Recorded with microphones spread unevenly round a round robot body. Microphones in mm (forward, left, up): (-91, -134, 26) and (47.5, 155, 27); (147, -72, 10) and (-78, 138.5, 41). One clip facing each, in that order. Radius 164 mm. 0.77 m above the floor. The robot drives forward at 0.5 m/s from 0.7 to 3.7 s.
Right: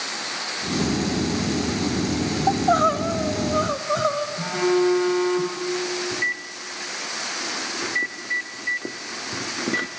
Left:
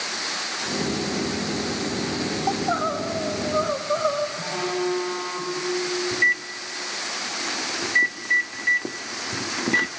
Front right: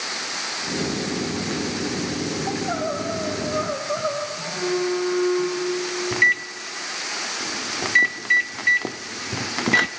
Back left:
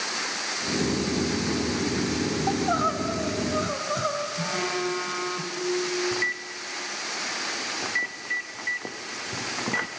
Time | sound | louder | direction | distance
2.5 | crying | right 4 dB, even | 155° right | 0.8 m
4.4 | a phone buzzing | right 7 dB, front right 7 dB | 175° right | 2.5 m
6.1 | a microwave | left 2 dB, front right 2 dB | 20° right | 0.7 m